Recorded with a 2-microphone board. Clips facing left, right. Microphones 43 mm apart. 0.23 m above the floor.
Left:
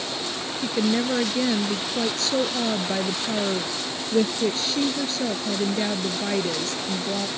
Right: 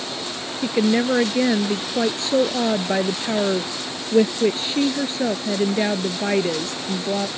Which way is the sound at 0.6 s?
25° right (ahead or behind).